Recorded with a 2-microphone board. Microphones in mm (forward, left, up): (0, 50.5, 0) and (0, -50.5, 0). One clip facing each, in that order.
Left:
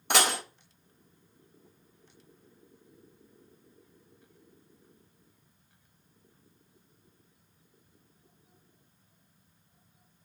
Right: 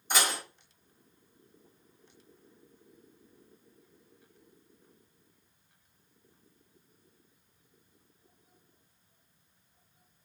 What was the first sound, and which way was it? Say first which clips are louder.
Dishes clattering: left 4 dB; 80° left.